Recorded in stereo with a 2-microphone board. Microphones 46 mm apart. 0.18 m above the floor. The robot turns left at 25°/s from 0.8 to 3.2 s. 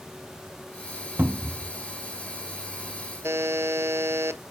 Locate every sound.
1.2 s a cupboard door: 45° right (ahead or behind), 0.5 m; by 1.7 s 40° right (ahead or behind), 0.5 m
3.2 s a buzzer: 75° right (ahead or behind), 0.5 m